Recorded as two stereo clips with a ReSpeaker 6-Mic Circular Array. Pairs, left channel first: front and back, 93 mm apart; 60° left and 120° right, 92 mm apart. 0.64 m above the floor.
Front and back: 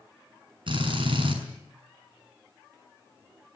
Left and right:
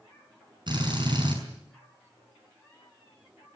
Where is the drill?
155° right, 6.5 m.